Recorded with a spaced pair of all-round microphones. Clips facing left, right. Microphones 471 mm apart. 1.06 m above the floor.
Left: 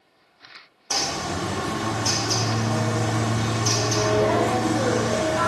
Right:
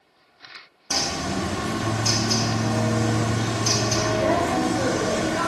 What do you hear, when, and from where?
0.9 s a bird: 45° right (ahead or behind), 0.8 m